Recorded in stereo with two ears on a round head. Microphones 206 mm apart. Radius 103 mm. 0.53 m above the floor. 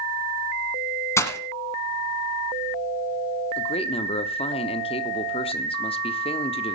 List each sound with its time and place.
1.2 s breaking glass: 10° left (ahead or behind), 1.4 m
3.6 s a man speaking: 25° left (ahead or behind), 0.8 m